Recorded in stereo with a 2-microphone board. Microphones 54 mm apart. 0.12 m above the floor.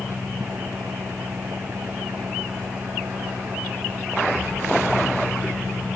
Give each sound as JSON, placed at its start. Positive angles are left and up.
{"t": 0.0, "sound": "an engine running", "side_deg": -45}